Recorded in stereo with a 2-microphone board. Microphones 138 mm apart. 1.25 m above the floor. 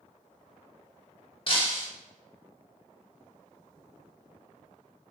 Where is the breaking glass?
40° left (ahead or behind), 1.3 m.